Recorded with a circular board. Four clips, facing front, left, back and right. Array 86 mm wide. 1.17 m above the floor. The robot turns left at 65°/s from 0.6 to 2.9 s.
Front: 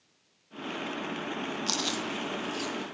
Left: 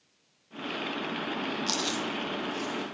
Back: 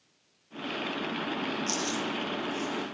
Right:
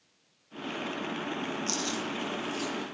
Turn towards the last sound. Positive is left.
turn(degrees=-40)